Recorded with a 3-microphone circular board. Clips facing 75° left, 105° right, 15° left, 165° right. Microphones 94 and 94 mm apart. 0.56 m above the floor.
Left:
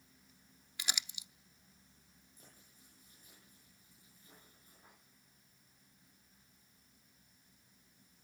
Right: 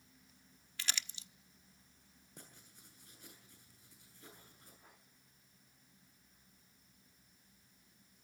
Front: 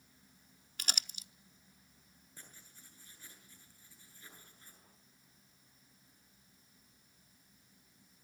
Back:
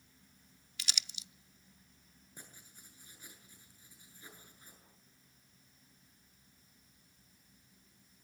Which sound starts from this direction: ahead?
Crumpling, at 0.8 s.